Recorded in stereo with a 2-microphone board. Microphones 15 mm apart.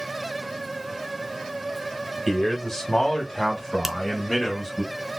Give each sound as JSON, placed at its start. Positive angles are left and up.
{"t": 2.3, "sound": "a man speaking", "side_deg": 30, "distance_m": 1.9}
{"t": 3.8, "sound": "a finger snap", "side_deg": -20, "distance_m": 0.6}